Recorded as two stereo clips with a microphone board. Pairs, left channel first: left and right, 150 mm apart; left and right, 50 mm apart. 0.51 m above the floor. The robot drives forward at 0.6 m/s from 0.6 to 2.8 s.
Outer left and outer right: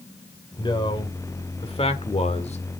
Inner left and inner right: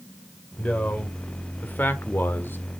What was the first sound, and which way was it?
A man speaking, 30° left (ahead or behind).